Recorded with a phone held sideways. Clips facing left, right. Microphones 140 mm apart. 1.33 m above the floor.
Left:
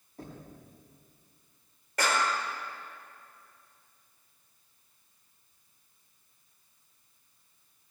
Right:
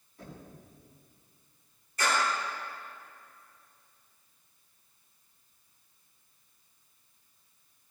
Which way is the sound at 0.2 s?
45° left (ahead or behind).